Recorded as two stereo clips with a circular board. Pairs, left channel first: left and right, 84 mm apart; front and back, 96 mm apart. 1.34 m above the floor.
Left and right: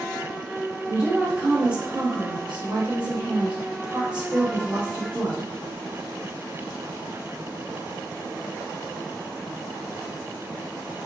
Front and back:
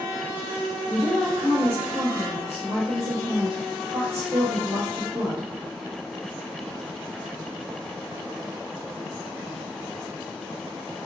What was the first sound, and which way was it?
A woman speaking, 160° right.